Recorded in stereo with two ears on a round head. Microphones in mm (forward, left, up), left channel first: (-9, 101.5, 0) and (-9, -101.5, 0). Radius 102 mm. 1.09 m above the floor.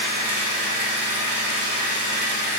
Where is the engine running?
75° right (ahead or behind), 1.6 m.